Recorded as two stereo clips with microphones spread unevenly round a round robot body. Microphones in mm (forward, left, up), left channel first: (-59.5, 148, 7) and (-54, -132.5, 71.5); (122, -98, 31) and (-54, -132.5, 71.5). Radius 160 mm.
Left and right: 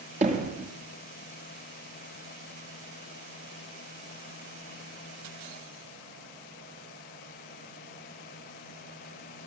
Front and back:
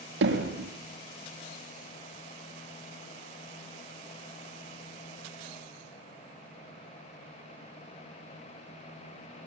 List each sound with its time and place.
0.2 s hammering: 155° right, 5 m